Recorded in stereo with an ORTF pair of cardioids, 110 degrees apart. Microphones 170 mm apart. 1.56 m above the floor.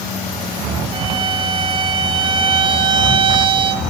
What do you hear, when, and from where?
0.9 s a violin: 30° right, 2 m